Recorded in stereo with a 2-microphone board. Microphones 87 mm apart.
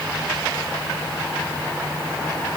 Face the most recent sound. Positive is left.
No sound to turn to.